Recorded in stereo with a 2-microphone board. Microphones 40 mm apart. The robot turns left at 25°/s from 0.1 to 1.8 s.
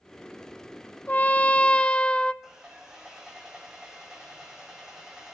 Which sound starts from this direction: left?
A trumpet, at 1.1 s.